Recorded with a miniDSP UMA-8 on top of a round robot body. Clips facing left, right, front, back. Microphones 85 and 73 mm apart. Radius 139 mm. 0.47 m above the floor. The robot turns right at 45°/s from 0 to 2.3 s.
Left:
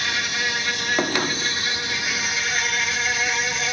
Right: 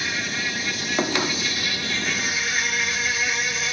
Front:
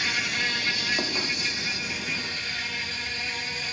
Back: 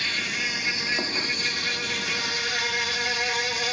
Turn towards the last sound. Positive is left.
turn(degrees=180)